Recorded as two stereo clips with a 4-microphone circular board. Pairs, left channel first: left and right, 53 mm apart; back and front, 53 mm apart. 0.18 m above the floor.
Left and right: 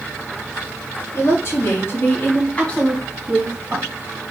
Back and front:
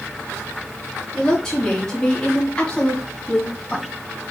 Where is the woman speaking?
100° left, 3 m; by 3.9 s 110° right, 1.8 m.